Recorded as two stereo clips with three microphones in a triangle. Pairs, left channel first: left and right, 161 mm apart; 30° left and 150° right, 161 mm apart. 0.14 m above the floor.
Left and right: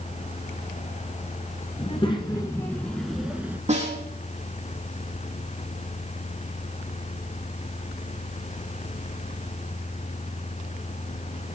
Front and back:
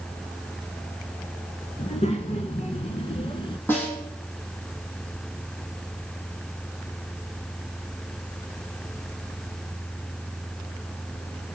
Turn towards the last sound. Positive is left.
turn(degrees=-45)